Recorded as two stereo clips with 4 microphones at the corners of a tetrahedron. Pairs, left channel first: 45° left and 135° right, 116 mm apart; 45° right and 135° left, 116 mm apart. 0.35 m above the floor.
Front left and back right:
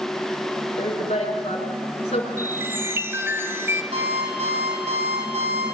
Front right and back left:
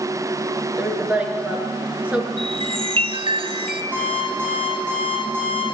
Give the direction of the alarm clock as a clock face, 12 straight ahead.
5 o'clock.